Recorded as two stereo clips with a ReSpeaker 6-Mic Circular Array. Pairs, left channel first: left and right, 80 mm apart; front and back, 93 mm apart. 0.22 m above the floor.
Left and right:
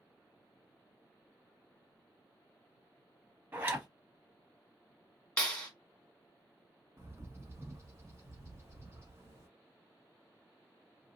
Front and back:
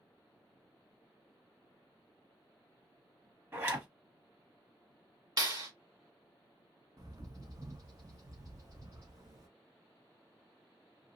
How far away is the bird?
About 0.6 m.